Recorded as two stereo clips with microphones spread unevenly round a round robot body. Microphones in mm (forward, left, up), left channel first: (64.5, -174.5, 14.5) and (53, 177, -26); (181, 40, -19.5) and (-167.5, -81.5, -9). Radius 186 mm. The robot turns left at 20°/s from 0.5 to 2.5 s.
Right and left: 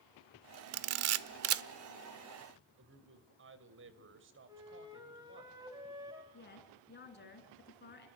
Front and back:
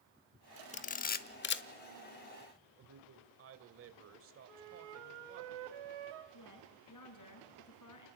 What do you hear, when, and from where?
0.7 s a camera shutter: 85° left, 0.8 m; by 1.6 s 65° left, 0.8 m
2.8 s a man speaking: 145° left, 2 m
4.5 s a flute: 170° left, 2 m
6.3 s a woman speaking: 25° right, 5 m